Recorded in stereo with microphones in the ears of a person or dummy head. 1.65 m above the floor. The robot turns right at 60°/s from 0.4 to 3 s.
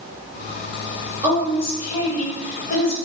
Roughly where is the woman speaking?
Ahead.